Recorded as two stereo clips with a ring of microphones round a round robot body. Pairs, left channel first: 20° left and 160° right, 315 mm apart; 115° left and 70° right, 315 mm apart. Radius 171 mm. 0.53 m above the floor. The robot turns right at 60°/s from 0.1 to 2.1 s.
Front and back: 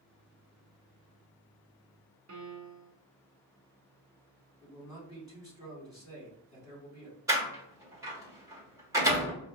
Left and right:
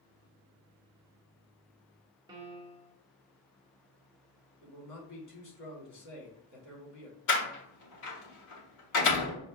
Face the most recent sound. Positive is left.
turn(degrees=125)